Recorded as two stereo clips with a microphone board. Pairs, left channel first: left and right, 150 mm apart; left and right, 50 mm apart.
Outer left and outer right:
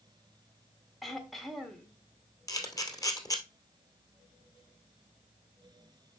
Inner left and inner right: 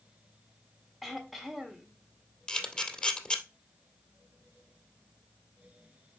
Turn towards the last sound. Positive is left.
turn(degrees=25)  # may be behind; listen again after turning